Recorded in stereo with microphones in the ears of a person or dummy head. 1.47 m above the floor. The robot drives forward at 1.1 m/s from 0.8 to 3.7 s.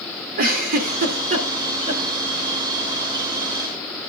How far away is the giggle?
About 2.5 m.